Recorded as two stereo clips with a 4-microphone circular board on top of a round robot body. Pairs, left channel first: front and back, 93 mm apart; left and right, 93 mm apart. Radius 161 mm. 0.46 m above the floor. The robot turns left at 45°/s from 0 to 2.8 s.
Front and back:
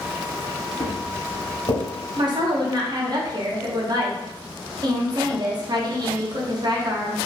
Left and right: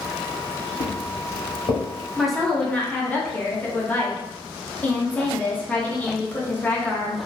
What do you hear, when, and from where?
0.8 s footsteps: 70° left, 0.9 m; by 1.8 s 50° left, 2.0 m
2.2 s a woman speaking: 175° right, 1.0 m; by 7.2 s 160° left, 1.0 m